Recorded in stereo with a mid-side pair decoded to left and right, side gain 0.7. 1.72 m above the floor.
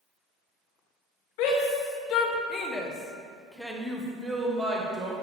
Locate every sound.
1.4 s a shout: 70° left, 1.4 m; by 5.1 s 35° right, 1.5 m